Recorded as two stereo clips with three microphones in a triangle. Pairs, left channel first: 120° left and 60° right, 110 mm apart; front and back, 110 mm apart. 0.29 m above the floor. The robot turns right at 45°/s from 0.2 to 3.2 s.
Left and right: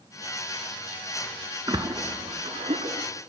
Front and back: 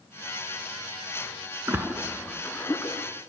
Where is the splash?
110° right, 0.7 m; by 3.1 s 50° right, 0.7 m.